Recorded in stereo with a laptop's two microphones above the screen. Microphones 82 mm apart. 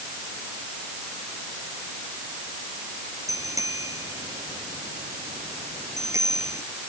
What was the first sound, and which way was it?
A bicycle bell, 40° right (ahead or behind).